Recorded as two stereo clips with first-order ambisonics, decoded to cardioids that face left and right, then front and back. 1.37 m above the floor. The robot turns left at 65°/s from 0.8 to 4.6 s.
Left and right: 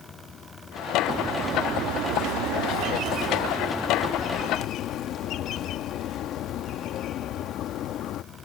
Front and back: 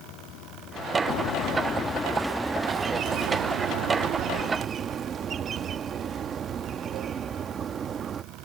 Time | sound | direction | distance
0.0 | running water | 30° left | ?
1.1 | a bird | 10° right | ?